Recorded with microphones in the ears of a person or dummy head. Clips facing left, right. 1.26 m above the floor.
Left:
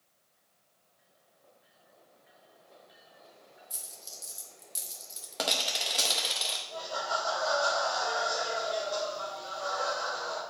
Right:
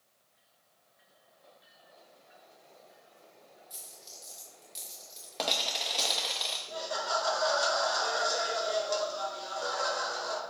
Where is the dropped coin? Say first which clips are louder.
Left 1 dB; 15° left (ahead or behind), 0.7 m.